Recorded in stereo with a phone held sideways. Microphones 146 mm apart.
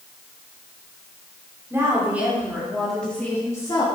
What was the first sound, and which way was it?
A woman speaking, 15° right (ahead or behind).